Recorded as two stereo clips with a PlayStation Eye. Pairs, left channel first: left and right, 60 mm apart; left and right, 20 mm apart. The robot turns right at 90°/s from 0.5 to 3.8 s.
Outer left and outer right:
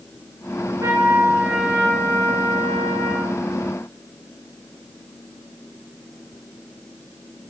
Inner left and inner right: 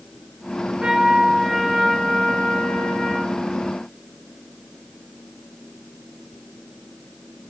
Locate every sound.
0.8 s a trumpet: 80° right, 9.5 m; by 3.4 s 150° left, 9.5 m